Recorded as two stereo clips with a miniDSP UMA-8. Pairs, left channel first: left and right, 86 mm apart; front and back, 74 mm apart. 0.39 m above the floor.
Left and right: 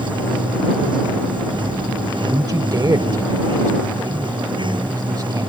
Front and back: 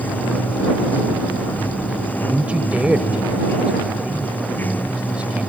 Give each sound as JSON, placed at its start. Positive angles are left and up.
{"t": 0.0, "sound": "running water", "azimuth_deg": -65}
{"t": 2.3, "sound": "a man speaking", "azimuth_deg": -110}